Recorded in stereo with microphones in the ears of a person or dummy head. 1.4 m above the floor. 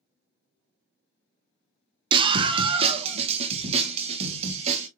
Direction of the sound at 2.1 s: 35° right (ahead or behind).